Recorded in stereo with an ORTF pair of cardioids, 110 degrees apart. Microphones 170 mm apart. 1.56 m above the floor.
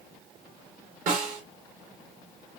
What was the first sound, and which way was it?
A snare drum, 55° right.